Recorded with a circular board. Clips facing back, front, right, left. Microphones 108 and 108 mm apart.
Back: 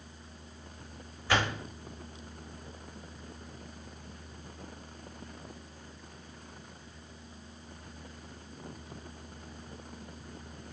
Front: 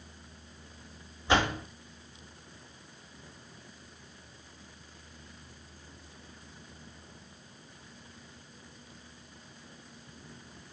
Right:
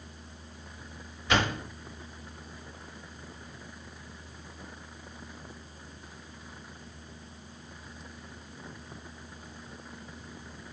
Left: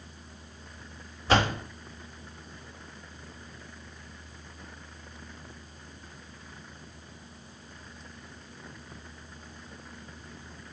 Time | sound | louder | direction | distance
1.3 | a door slam | front 3 dB, left 3 dB | 60° left | 1.2 m